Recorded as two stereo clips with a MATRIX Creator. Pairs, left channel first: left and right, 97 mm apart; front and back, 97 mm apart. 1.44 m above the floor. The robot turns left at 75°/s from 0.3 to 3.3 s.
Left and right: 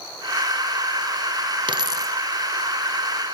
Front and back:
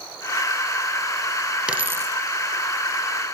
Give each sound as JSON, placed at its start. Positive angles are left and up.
{"t": 1.7, "sound": "a dropped coin", "azimuth_deg": -105, "distance_m": 2.0}